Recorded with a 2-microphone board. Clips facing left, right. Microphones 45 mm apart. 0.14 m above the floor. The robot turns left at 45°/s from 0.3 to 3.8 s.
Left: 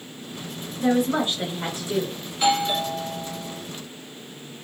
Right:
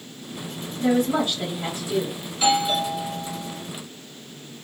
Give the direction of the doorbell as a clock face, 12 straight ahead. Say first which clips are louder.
Right 1 dB; 11 o'clock.